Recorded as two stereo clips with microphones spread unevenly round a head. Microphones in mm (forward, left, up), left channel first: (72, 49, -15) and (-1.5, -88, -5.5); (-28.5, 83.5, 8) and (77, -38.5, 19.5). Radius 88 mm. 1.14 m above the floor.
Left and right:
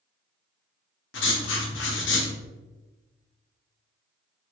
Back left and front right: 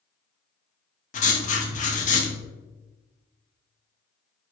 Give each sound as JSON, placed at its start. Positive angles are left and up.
{"t": 1.1, "sound": "writing", "azimuth_deg": 85, "distance_m": 1.0}